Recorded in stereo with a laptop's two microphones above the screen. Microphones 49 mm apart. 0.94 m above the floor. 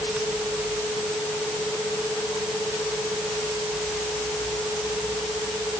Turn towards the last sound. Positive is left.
No sound to turn to.